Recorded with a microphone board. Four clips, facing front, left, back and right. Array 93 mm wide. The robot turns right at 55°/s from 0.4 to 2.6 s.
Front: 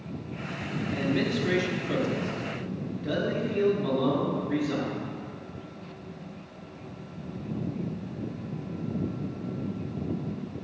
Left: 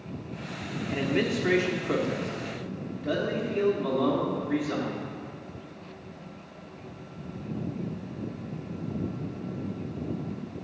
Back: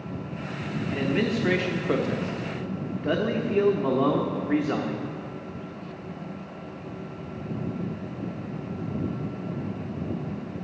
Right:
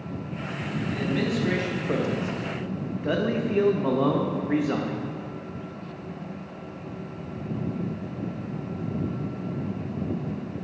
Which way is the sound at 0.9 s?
125° left.